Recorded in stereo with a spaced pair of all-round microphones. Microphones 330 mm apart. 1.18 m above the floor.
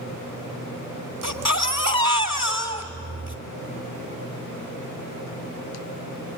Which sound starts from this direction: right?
A baby crying, at 1.2 s.